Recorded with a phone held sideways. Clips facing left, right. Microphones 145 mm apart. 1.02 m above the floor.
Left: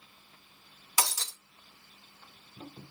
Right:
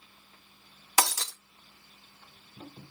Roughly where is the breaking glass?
Right.